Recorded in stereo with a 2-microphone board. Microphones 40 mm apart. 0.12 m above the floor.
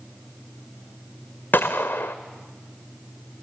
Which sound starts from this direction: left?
A gunshot, at 1.5 s.